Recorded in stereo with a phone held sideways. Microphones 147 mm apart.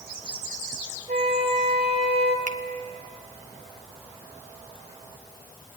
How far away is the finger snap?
About 1.0 m.